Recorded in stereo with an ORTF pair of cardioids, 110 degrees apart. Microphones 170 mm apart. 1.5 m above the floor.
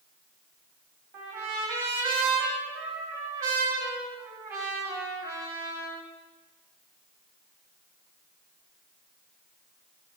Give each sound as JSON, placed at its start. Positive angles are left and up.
{"t": 1.1, "sound": "a trumpet", "azimuth_deg": -70, "distance_m": 2.0}